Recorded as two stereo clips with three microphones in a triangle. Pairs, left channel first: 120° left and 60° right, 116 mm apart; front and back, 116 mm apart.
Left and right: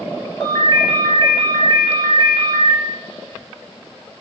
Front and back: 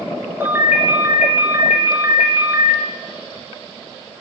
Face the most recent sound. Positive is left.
turn(degrees=120)